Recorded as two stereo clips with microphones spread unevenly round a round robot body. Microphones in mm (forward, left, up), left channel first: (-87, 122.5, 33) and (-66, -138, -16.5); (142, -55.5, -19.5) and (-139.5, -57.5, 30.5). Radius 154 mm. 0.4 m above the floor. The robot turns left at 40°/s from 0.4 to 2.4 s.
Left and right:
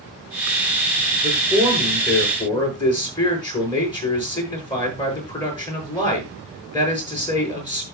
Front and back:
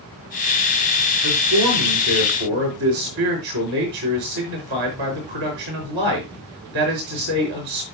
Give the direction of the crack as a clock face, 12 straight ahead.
No crack in this recording.